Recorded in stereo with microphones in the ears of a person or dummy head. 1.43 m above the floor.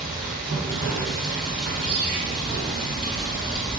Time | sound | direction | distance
0.0 | running water | centre (ahead or behind) | 1.6 m
1.9 | a ringtone | 40° right (ahead or behind) | 2.0 m